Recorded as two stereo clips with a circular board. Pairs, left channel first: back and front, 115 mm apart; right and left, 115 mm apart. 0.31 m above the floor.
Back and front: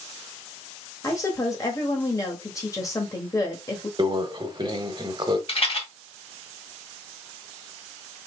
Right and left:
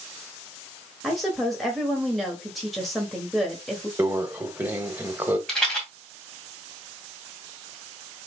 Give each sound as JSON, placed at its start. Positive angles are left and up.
{"t": 1.0, "sound": "a woman speaking", "azimuth_deg": 180, "distance_m": 1.1}
{"t": 4.0, "sound": "a microwave", "azimuth_deg": 25, "distance_m": 0.9}
{"t": 5.5, "sound": "a rattle", "azimuth_deg": -170, "distance_m": 2.0}